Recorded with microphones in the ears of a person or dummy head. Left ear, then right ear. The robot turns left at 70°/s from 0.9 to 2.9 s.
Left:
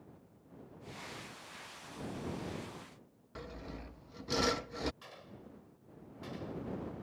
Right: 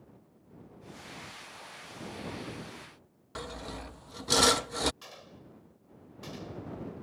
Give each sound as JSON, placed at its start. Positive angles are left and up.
{"t": 3.4, "sound": "sawing", "side_deg": -45}
{"t": 5.0, "sound": "a gunshot", "side_deg": -15}